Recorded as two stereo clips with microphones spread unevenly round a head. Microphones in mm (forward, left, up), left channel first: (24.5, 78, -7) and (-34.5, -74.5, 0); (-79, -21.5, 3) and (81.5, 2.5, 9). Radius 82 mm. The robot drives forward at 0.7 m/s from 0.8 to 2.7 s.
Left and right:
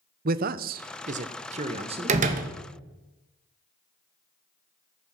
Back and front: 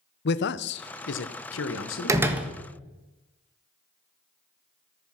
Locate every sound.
0.2 s a man speaking: 145° right, 0.6 m; by 2.2 s 170° right, 1.5 m
2.1 s a door slam: 60° right, 1.1 m; by 2.5 s 75° right, 1.1 m